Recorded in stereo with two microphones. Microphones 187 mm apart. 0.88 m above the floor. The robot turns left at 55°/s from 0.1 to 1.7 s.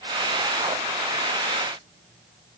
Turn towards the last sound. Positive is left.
No sound to turn to.